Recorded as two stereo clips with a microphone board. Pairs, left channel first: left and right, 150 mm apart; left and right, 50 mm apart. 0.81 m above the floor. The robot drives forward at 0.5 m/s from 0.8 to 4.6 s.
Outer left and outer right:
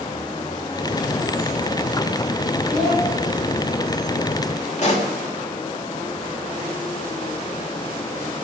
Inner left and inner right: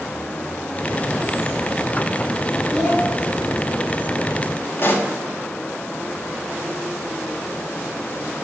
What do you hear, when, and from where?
2.7 s a child speaking: 5° right (ahead or behind), 2.5 m
4.8 s a pop: 50° left (ahead or behind), 1.2 m